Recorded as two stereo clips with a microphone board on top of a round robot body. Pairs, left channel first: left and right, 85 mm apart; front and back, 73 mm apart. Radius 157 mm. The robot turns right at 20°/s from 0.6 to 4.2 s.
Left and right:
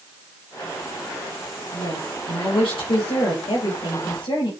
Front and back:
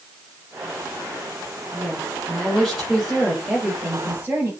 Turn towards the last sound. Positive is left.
turn(degrees=120)